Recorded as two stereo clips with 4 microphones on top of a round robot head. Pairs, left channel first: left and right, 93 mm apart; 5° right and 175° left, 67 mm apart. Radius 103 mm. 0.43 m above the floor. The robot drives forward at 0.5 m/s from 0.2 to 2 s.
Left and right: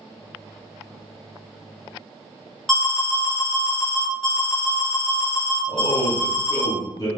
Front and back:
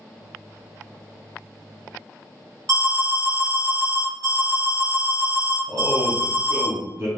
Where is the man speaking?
130° left, 1.3 m.